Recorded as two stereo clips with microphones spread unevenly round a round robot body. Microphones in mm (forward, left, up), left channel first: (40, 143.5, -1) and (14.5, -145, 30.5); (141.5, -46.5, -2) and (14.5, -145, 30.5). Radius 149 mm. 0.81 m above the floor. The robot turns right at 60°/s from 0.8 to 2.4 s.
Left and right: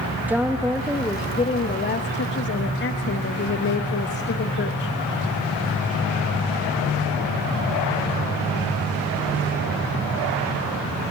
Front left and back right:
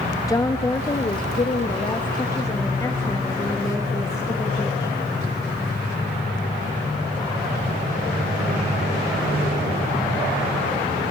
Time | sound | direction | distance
0.3 | a woman speaking | 5° right | 1.0 m